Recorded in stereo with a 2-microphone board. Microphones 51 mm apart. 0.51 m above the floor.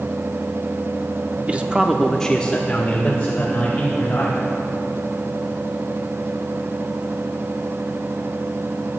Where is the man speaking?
30° right (ahead or behind), 0.7 m; by 4.4 s 40° left (ahead or behind), 2.5 m.